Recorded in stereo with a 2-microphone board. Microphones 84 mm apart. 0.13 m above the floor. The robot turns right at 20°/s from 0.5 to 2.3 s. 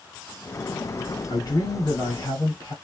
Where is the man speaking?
55° left (ahead or behind), 3 m; by 2.8 s 45° left (ahead or behind), 3 m.